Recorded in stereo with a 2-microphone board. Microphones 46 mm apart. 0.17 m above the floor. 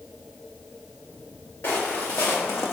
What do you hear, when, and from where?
1.6 s footsteps: 70° left (ahead or behind), 1.5 m; by 2.7 s 75° left (ahead or behind), 0.7 m